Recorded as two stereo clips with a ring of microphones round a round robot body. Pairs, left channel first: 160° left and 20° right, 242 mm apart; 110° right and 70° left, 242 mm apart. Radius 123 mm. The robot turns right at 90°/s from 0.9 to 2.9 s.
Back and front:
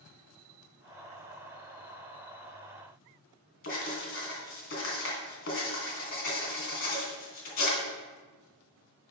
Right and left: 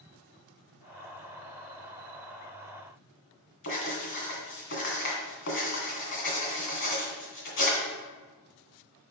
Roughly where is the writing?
Behind right.